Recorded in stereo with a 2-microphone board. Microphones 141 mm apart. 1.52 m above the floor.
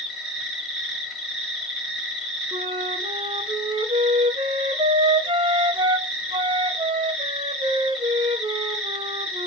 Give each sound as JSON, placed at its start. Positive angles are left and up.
{"t": 0.0, "sound": "an insect", "side_deg": 0, "distance_m": 1.5}
{"t": 2.5, "sound": "a flute", "side_deg": -40, "distance_m": 0.6}